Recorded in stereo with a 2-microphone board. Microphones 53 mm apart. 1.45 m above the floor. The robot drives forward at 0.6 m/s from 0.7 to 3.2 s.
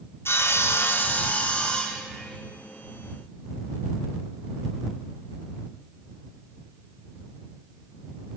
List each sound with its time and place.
0.2 s sawing: 50° left (ahead or behind), 0.6 m; by 2.4 s 20° left (ahead or behind), 1.4 m